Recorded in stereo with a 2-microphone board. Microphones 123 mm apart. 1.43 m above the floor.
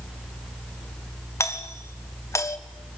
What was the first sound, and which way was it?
A doorbell, 25° left (ahead or behind).